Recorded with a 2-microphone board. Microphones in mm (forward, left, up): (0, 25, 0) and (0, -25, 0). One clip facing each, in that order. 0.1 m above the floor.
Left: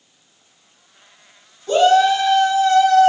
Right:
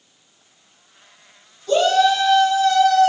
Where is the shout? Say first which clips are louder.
Left 3 dB; 25° left (ahead or behind), 1.3 m.